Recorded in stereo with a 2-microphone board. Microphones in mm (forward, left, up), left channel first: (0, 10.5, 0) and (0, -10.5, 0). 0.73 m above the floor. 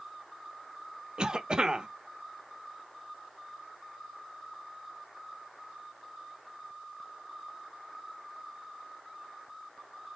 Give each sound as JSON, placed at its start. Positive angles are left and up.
{"t": 1.2, "sound": "a cough", "side_deg": -40, "distance_m": 0.8}